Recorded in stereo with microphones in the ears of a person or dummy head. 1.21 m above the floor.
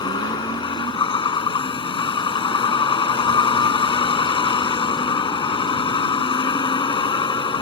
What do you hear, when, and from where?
0.0 s a vehicle: 35° left (ahead or behind)